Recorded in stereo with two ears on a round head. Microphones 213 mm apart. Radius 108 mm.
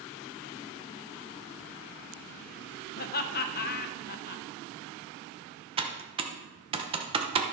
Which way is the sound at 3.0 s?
45° left (ahead or behind).